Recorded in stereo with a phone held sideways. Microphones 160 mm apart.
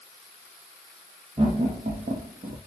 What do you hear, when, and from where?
1.4 s laughter: 40° right (ahead or behind), 0.7 m; by 2.6 s 55° right (ahead or behind), 0.8 m